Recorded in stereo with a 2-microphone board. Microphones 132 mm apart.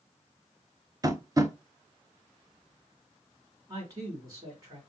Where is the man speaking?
25° right (ahead or behind), 1.7 m.